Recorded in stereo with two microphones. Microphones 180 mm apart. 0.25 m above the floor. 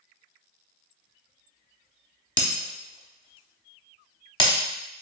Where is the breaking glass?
30° left (ahead or behind), 0.6 m.